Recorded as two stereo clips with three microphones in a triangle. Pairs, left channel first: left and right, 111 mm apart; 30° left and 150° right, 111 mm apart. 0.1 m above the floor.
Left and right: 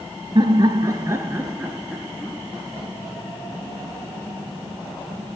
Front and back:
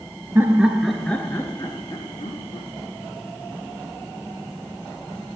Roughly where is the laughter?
Right.